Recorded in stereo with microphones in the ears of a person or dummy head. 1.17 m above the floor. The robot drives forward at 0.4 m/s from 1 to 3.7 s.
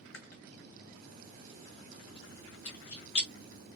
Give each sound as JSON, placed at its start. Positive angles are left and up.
{"t": 0.1, "sound": "chewing", "side_deg": 75, "distance_m": 1.9}